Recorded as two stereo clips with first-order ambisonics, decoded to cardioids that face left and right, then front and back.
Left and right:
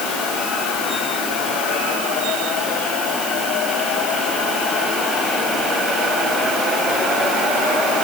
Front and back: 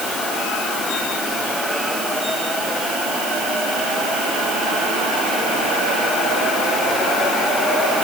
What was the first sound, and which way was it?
Only background noise.